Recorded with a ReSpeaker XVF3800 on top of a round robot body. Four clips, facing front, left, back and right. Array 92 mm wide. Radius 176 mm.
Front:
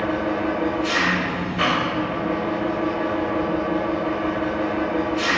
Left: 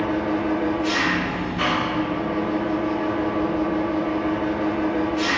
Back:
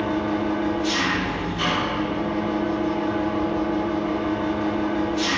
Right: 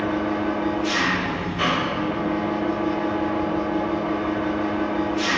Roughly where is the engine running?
Ahead.